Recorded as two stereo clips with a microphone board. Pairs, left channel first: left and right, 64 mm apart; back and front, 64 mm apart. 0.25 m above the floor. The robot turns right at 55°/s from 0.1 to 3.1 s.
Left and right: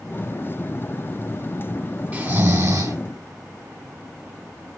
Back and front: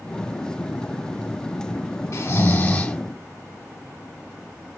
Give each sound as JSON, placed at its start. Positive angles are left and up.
{"t": 2.1, "sound": "snoring", "azimuth_deg": -150, "distance_m": 1.8}